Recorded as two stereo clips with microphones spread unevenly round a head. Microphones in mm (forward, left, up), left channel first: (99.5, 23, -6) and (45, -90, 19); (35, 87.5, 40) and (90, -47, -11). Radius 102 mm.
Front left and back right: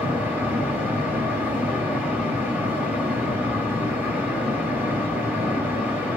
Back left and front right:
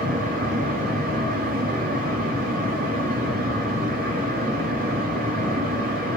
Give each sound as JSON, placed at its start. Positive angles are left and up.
{"t": 0.0, "sound": "a fan", "azimuth_deg": -40, "distance_m": 2.0}